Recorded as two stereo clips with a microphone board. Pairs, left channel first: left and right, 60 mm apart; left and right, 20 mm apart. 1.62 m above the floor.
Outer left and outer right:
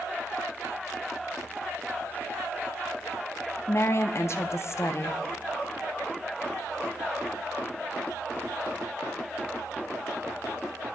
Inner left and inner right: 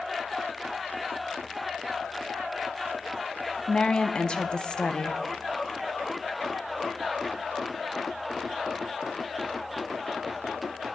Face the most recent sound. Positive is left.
turn(degrees=50)  # may be behind; listen again after turning